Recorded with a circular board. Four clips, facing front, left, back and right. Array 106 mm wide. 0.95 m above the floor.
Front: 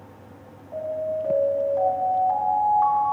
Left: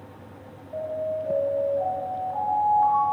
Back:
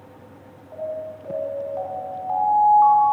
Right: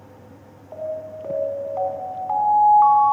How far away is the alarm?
About 4.5 m.